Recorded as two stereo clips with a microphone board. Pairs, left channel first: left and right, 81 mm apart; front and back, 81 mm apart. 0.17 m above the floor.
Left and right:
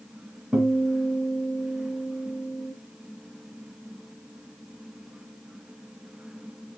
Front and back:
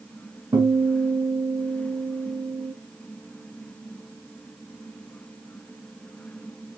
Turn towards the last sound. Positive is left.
turn(degrees=-175)